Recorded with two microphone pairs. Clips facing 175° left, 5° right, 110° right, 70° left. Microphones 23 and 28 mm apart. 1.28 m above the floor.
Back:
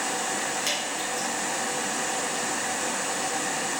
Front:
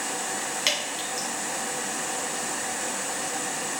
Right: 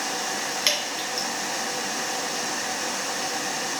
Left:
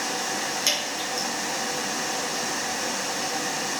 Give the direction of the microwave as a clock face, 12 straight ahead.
I don't hear a microwave.